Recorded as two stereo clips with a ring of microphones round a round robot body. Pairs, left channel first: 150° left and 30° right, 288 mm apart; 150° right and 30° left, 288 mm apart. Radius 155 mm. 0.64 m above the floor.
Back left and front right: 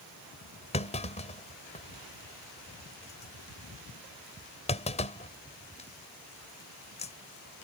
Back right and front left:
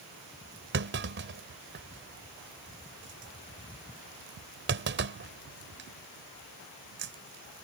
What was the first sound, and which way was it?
A clunk, 80° left.